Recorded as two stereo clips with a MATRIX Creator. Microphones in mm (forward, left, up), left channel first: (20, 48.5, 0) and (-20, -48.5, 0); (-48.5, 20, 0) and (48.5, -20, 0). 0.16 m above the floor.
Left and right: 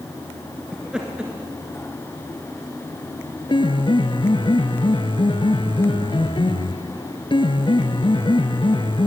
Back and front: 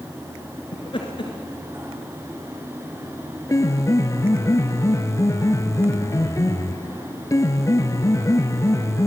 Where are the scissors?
No scissors in this recording.